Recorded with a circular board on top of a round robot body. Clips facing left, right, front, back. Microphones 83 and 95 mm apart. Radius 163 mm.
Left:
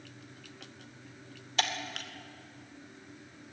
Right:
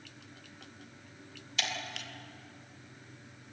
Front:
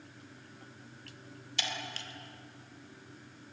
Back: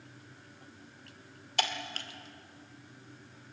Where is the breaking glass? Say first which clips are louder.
Left 4 dB, back 5 dB; 140° left, 1.9 m.